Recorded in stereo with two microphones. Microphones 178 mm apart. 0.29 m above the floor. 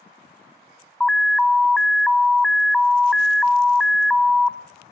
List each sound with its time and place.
1.0 s an alarm: 5° left (ahead or behind), 0.7 m